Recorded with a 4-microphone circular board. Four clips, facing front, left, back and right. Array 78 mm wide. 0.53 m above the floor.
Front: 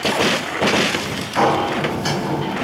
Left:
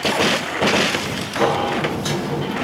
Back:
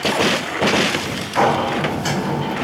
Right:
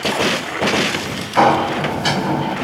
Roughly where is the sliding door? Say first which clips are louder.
Right 5 dB, even; right.